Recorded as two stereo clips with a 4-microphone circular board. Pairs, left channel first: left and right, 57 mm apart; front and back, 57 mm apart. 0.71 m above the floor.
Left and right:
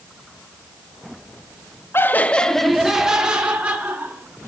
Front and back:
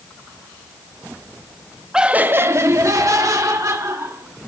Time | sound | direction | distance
1.9 | laughter | 105° left | 0.8 m